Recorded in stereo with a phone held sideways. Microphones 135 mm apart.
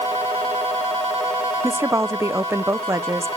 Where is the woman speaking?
20° right (ahead or behind), 0.6 m.